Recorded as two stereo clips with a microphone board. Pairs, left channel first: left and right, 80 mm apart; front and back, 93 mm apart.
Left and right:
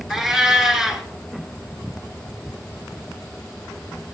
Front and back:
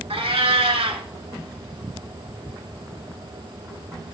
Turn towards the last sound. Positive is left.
turn(degrees=-175)